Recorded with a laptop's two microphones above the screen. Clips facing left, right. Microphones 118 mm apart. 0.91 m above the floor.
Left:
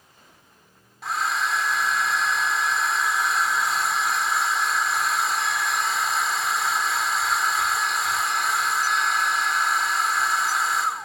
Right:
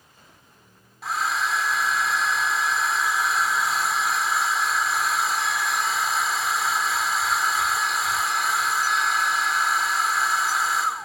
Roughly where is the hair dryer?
Centre.